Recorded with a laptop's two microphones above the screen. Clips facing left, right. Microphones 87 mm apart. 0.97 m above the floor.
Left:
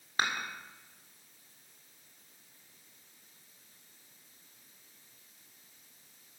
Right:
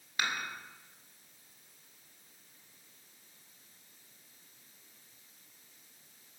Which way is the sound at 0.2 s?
35° left (ahead or behind).